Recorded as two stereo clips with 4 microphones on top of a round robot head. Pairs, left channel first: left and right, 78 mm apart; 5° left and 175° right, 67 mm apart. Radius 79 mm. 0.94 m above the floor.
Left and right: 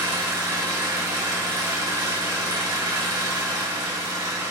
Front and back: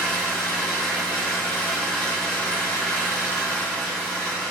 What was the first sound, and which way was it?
An engine running, 70° right.